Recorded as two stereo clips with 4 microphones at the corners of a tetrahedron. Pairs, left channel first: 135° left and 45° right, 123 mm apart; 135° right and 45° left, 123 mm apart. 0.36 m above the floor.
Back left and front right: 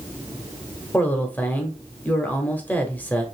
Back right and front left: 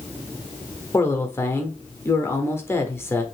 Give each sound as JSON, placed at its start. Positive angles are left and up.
{"t": 0.9, "sound": "a man speaking", "azimuth_deg": -175, "distance_m": 0.8}